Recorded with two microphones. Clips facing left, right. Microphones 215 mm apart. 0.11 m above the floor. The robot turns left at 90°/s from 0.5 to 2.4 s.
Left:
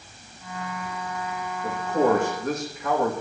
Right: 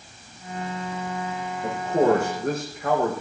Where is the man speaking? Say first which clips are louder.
Right 2 dB; 55° right, 6.5 m; by 3.1 s 125° right, 6.5 m.